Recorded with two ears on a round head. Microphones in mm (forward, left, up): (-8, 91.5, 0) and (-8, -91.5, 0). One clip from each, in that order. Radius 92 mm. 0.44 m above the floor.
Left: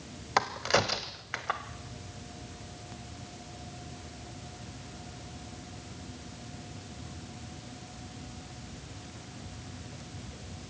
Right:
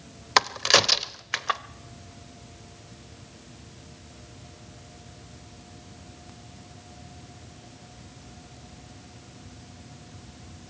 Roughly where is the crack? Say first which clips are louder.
Right 7 dB; right.